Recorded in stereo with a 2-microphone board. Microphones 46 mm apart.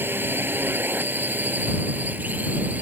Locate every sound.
0.0 s a drone: 50° right (ahead or behind); by 2.8 s 35° right (ahead or behind)